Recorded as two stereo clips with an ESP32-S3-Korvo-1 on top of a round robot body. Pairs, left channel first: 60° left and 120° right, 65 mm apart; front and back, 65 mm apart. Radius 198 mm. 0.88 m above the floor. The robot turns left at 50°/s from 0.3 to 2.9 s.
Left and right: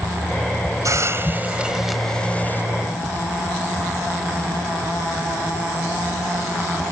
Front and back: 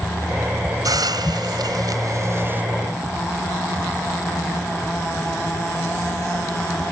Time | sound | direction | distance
0.8 | a hiss | 155° right | ?